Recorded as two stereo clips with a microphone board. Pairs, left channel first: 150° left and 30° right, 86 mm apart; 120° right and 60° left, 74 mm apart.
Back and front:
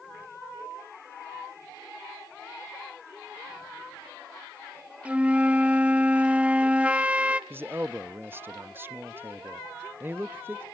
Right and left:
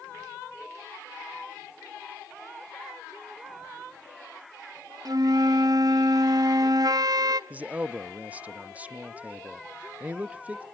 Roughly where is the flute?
Ahead left.